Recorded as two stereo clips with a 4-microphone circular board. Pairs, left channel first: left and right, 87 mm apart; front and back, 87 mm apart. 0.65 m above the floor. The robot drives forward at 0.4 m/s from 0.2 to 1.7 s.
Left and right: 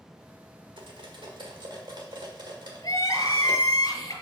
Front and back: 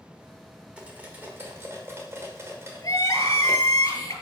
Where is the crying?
45° left, 1.8 m.